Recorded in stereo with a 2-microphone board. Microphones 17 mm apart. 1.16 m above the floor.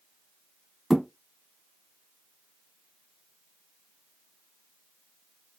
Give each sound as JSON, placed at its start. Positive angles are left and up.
{"t": 0.9, "sound": "a thud", "side_deg": -15, "distance_m": 2.0}